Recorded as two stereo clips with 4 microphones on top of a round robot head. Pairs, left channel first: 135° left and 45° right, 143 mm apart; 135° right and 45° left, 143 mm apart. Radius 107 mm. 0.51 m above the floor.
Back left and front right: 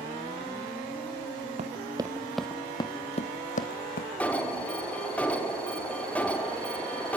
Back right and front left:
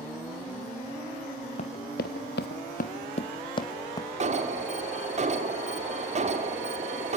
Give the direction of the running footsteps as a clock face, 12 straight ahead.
3 o'clock.